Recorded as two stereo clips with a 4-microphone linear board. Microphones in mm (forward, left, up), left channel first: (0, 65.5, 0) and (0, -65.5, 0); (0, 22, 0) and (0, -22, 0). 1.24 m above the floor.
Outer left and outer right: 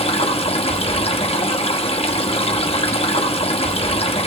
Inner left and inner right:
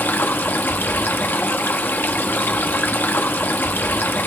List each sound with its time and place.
0.0 s running water: 50° left (ahead or behind), 1.0 m